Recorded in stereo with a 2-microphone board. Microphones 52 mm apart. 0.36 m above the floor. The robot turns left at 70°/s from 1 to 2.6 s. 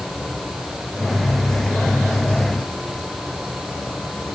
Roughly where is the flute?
I don't hear a flute.